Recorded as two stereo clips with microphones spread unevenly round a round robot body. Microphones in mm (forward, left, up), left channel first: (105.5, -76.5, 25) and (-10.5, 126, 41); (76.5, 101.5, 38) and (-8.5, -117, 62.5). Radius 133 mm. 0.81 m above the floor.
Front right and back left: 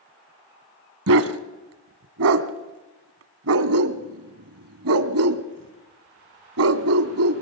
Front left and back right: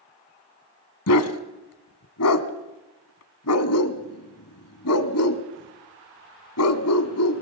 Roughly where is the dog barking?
Left.